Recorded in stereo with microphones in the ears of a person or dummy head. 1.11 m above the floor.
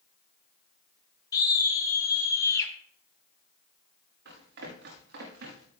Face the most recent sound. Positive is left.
turn(degrees=-60)  # may be behind; listen again after turning